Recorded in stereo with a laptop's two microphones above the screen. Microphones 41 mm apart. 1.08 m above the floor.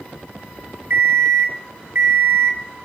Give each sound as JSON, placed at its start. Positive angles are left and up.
{"t": 0.9, "sound": "an alarm clock", "side_deg": -55, "distance_m": 1.8}